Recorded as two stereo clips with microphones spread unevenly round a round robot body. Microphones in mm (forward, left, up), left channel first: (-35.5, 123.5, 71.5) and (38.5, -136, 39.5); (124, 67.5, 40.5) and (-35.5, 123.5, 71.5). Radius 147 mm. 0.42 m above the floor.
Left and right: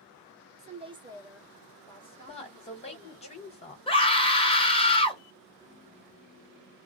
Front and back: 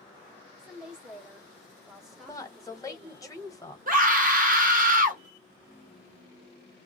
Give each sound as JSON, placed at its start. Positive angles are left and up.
{"t": 0.6, "sound": "a woman speaking", "azimuth_deg": -105, "distance_m": 1.2}
{"t": 2.3, "sound": "a woman speaking", "azimuth_deg": 40, "distance_m": 1.6}
{"t": 3.9, "sound": "a scream", "azimuth_deg": 175, "distance_m": 1.3}